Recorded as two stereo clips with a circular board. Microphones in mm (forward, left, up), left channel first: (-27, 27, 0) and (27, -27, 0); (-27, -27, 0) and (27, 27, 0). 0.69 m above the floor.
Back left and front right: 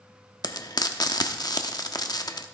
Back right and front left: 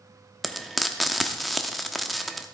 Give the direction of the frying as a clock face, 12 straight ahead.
7 o'clock.